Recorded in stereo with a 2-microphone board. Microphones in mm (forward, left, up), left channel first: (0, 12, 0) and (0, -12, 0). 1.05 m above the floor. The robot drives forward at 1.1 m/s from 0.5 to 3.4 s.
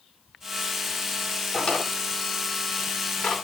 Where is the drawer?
30° left (ahead or behind), 3.5 m; by 3.4 s 60° left (ahead or behind), 2.5 m.